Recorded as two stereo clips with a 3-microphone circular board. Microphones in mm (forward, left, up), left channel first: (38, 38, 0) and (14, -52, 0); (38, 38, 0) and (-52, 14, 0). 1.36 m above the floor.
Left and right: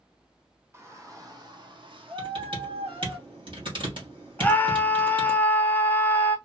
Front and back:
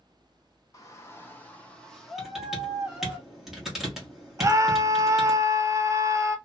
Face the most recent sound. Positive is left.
turn(degrees=145)